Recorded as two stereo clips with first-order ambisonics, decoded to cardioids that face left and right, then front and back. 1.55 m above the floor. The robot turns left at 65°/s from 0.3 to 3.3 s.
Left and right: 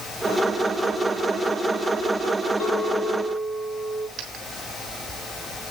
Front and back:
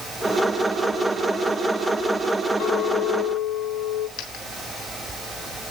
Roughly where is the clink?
Ahead left.